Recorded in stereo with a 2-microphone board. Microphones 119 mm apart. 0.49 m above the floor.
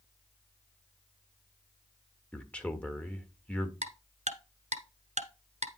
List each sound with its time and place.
2.3 s a man speaking: 10° left (ahead or behind), 1.5 m
3.8 s ticking: 70° right (ahead or behind), 1.1 m